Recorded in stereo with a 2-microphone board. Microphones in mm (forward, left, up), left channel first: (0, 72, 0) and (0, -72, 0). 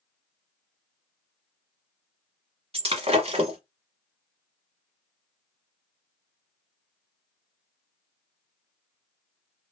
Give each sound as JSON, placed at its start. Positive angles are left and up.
{"t": 2.7, "sound": "breaking glass", "side_deg": -45, "distance_m": 1.0}